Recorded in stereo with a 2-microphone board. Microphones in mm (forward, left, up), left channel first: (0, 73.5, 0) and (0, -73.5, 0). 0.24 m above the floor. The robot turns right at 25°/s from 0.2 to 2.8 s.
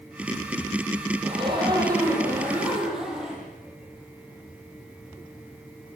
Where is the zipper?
45° right, 9 m; by 3.5 s 5° right, 9 m.